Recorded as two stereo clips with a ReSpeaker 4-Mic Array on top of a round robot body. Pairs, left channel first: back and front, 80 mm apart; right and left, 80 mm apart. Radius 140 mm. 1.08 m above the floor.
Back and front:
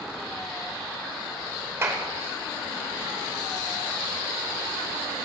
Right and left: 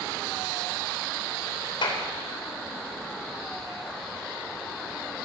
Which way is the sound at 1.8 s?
60° right.